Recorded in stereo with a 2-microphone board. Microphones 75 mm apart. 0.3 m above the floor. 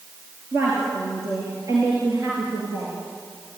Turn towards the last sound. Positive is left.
turn(degrees=-55)  # may be behind; listen again after turning